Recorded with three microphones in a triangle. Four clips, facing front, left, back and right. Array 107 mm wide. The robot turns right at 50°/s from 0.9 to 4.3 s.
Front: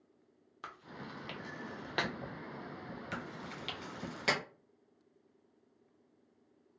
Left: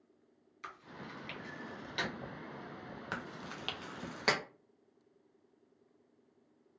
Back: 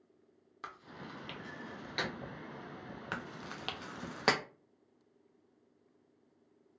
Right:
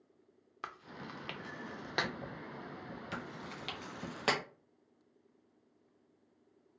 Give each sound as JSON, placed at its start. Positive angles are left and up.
{"t": 0.6, "sound": "chewing", "azimuth_deg": -100, "distance_m": 0.5}
{"t": 3.1, "sound": "chewing", "azimuth_deg": 135, "distance_m": 0.5}